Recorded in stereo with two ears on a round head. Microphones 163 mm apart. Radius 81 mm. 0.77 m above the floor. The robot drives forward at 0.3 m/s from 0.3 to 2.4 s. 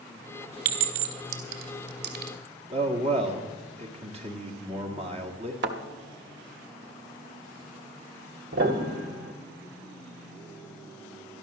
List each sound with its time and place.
0.7 s a clink: 50° right (ahead or behind), 2.5 m; by 2.3 s 60° right (ahead or behind), 2 m
2.7 s a man speaking: 35° right (ahead or behind), 2.0 m
5.6 s a thud: 65° right (ahead or behind), 1.3 m
8.5 s a piano: 85° right, 2 m